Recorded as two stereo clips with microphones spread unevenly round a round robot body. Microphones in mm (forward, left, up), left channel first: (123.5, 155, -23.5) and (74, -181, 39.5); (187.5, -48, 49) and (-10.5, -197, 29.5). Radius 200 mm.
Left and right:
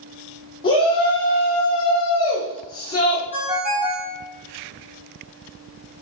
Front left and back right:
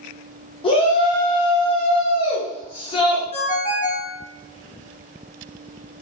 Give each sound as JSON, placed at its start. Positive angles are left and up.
{"t": 0.6, "sound": "a shout", "azimuth_deg": 80, "distance_m": 0.7}
{"t": 3.3, "sound": "a ringtone", "azimuth_deg": -25, "distance_m": 1.9}